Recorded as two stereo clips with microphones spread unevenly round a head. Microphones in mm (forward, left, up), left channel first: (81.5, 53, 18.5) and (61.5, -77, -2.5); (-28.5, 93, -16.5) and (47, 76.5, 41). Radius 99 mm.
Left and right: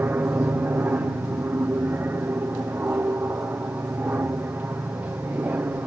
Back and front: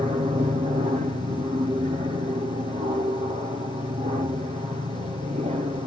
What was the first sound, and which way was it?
An aircraft, 40° right.